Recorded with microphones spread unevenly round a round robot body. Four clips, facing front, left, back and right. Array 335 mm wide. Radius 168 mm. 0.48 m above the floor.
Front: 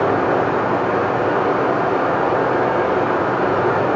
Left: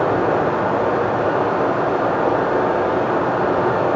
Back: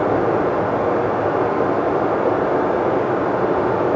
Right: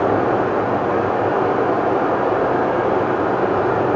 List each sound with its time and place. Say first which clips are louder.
0.0 s running water: even, front 1 dB; 95° left, 2 m